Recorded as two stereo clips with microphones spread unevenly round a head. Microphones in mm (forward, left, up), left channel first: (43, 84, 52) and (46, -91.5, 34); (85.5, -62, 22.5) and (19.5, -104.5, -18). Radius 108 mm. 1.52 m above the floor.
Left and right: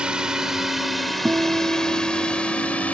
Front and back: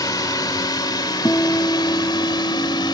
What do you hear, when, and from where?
0.0 s a drone: 5° right; by 2.9 s 10° left
1.2 s a guitar: 5° right